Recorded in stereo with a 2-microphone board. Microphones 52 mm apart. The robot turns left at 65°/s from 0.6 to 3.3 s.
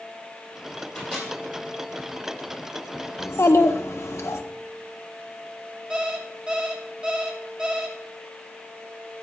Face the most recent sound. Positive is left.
turn(degrees=-20)  # may be behind; listen again after turning